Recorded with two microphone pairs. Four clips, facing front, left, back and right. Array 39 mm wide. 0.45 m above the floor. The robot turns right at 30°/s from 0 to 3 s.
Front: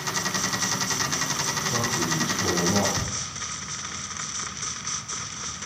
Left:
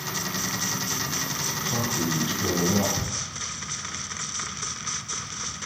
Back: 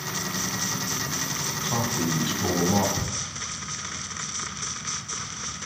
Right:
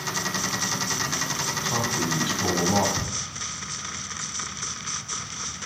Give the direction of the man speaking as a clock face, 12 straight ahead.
5 o'clock.